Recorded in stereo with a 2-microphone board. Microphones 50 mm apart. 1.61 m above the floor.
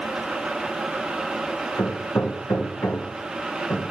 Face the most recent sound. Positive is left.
turn(degrees=65)  # may be behind; listen again after turning